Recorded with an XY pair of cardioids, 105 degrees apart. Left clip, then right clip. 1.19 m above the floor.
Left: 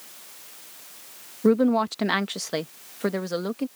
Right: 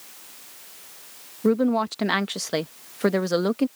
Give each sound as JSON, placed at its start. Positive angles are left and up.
{"t": 1.4, "sound": "a woman speaking", "azimuth_deg": 15}